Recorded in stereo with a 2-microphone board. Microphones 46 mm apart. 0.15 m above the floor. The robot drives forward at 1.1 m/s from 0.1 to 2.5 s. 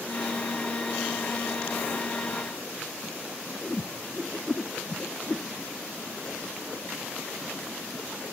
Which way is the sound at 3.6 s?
25° left (ahead or behind).